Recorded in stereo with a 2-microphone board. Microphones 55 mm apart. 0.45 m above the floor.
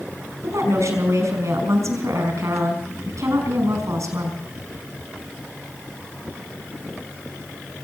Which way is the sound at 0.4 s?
75° right (ahead or behind).